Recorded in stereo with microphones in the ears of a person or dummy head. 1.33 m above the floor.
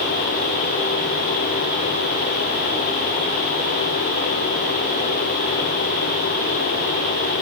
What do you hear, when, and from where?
Only background noise.